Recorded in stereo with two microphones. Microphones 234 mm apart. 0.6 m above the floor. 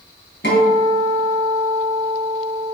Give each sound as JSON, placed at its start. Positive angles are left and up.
{"t": 0.4, "sound": "a guitar", "side_deg": 50, "distance_m": 2.5}